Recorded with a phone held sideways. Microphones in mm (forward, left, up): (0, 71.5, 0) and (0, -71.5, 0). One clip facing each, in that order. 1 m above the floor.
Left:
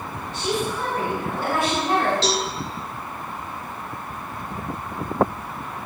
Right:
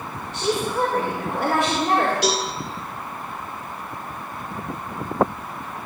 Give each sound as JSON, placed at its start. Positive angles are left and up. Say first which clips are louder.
{"t": 0.3, "sound": "a woman speaking", "louder": "right 3 dB", "side_deg": -65, "distance_m": 3.5}
{"t": 2.2, "sound": "a cowbell", "louder": "right 1 dB", "side_deg": -15, "distance_m": 2.0}